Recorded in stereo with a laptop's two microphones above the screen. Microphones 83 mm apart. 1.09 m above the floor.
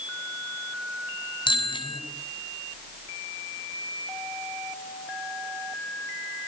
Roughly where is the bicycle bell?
Left.